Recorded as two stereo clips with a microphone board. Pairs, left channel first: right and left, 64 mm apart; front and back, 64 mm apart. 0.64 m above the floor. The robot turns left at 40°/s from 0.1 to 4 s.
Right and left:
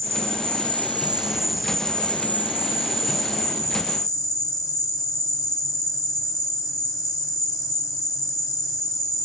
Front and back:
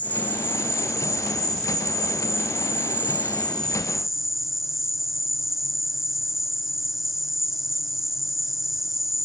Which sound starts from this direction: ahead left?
An insect, at 0.0 s.